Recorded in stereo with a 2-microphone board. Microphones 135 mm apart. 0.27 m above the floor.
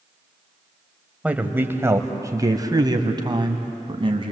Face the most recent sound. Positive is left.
turn(degrees=-40)  # may be behind; listen again after turning